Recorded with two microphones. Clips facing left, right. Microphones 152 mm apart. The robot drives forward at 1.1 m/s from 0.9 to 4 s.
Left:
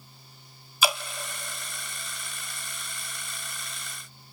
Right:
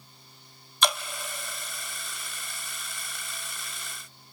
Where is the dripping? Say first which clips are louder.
Left 1 dB; 5° left (ahead or behind), 1.1 m.